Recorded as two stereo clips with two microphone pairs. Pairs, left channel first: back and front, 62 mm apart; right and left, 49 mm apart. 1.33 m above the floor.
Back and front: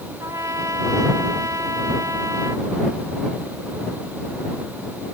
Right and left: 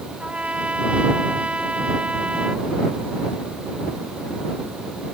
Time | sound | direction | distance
0.2 | a trumpet | 25° left | ?